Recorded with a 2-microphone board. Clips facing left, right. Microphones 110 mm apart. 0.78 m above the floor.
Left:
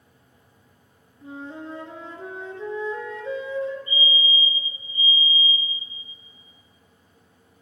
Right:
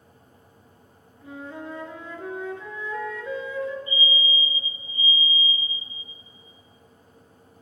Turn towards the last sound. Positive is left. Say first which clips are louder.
# left 1 dB
turn(degrees=40)  # may be behind; listen again after turning